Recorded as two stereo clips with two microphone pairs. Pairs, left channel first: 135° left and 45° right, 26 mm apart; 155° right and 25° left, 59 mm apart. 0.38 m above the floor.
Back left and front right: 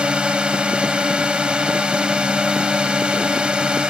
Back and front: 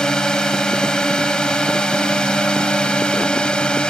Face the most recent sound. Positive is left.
turn(degrees=-85)